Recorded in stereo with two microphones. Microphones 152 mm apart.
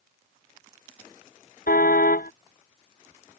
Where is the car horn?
75° left (ahead or behind).